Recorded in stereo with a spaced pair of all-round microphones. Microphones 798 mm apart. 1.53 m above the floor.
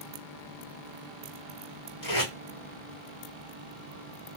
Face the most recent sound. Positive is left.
turn(degrees=60)  # may be behind; listen again after turning